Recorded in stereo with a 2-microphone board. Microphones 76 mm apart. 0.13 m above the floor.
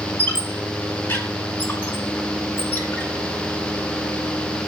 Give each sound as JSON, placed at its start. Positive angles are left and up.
{"t": 0.2, "sound": "a squeak", "side_deg": 25, "distance_m": 1.0}